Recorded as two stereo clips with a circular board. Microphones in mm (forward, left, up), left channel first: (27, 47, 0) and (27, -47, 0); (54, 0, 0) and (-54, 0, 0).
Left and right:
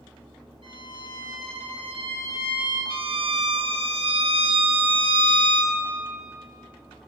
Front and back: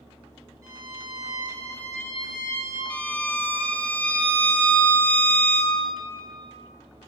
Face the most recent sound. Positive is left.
turn(degrees=-75)